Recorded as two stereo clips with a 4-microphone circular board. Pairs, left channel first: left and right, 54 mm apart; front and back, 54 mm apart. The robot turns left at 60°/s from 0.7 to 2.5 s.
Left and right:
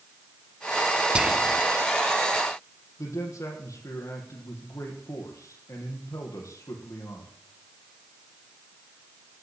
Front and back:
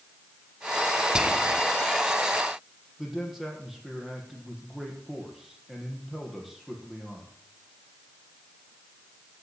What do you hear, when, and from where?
1.1 s whispering: 130° right, 1.1 m; by 1.6 s 155° right, 1.1 m
3.0 s a man speaking: 95° left, 4.5 m